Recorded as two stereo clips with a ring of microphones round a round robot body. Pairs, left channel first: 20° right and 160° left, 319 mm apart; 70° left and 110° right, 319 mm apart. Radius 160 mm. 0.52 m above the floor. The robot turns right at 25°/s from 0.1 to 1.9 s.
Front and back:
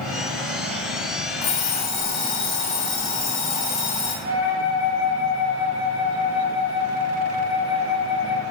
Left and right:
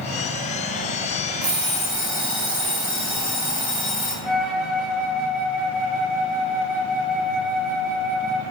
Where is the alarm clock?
40° right, 2.0 m; by 4.1 s 30° right, 2.0 m.